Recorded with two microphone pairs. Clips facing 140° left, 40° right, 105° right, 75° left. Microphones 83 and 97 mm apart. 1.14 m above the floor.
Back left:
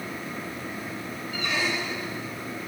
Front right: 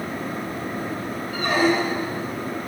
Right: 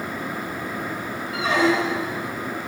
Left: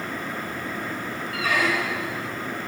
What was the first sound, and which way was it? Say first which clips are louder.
A squeak: front right 9 dB, right 5 dB; 50° right.